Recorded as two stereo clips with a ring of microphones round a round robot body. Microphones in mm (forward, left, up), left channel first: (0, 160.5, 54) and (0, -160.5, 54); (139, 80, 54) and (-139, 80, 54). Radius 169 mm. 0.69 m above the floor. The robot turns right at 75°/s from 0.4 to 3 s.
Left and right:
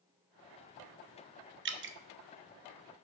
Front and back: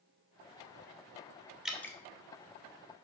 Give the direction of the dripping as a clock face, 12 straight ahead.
3 o'clock.